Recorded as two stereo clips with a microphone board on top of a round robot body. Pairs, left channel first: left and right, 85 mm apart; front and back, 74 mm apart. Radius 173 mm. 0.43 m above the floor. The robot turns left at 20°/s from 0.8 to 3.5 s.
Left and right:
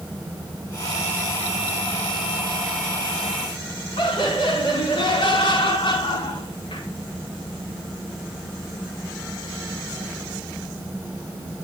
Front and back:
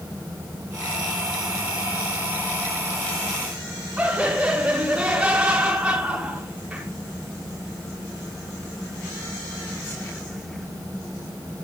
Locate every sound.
4.0 s laughter: 105° left, 5.5 m